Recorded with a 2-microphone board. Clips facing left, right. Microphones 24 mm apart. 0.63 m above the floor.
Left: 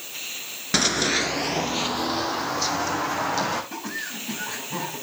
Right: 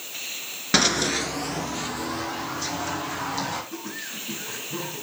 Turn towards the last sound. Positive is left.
turn(degrees=75)  # may be behind; listen again after turning